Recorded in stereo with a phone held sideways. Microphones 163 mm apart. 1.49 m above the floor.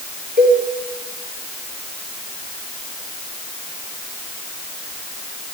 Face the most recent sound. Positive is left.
turn(degrees=-70)  # may be behind; listen again after turning